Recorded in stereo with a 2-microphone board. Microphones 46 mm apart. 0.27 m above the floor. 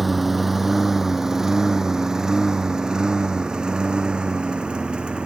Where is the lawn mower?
Centre (ahead or behind); by 5.3 s 20° right (ahead or behind).